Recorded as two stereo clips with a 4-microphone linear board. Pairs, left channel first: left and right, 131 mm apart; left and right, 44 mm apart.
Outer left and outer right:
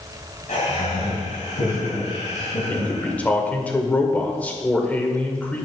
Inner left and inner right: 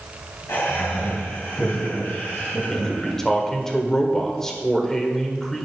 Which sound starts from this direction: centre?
A man speaking, at 2.7 s.